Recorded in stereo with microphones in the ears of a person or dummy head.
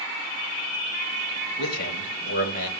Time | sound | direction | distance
1.6 | a man speaking | 45° left (ahead or behind) | 8 m